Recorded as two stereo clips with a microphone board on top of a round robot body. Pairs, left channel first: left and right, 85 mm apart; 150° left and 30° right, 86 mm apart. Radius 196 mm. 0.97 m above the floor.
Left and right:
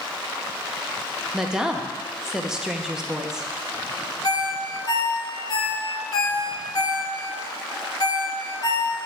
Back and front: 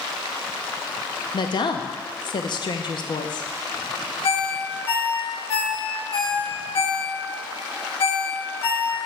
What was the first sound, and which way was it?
A woman speaking, 175° right.